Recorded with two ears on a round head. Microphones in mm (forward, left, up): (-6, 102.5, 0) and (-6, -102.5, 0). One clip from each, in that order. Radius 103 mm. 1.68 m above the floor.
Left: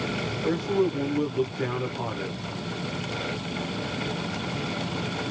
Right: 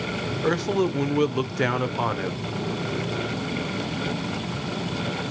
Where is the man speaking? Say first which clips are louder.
Right 2 dB; 45° right (ahead or behind), 0.7 m.